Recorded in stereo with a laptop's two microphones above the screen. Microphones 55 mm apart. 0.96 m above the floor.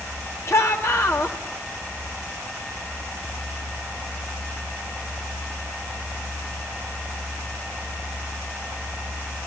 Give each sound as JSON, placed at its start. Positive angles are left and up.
{"t": 0.5, "sound": "a shout", "side_deg": 60, "distance_m": 2.0}